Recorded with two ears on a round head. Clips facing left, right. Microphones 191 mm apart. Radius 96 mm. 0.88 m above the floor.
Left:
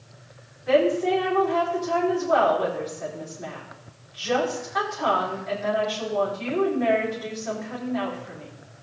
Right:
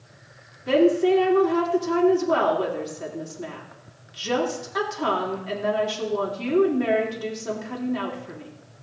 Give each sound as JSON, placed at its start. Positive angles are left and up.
{"t": 0.7, "sound": "a woman speaking", "side_deg": -45, "distance_m": 2.5}